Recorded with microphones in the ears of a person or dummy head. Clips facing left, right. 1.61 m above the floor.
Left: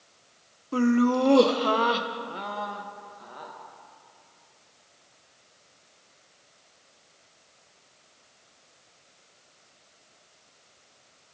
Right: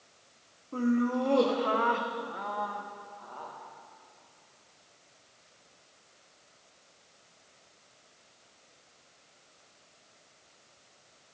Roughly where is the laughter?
Left.